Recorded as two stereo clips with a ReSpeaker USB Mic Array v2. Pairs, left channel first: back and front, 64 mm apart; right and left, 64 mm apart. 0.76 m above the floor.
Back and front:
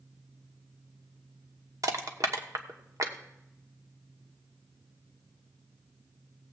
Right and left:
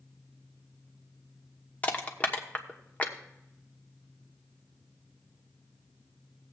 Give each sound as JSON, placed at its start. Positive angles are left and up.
{"t": 1.8, "sound": "crushing", "azimuth_deg": -25, "distance_m": 1.1}